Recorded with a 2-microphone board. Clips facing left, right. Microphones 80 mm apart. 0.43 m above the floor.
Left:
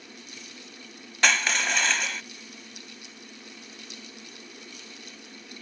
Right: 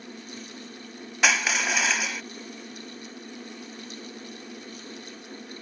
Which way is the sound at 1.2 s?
5° right (ahead or behind).